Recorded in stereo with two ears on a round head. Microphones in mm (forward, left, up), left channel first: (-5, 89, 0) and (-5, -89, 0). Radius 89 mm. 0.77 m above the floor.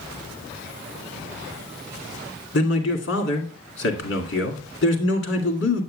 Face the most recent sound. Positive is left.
turn(degrees=65)  # may be behind; listen again after turning